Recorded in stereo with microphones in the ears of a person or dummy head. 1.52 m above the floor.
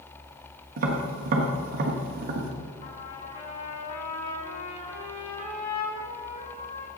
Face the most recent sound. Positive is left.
turn(degrees=45)  # may be behind; listen again after turning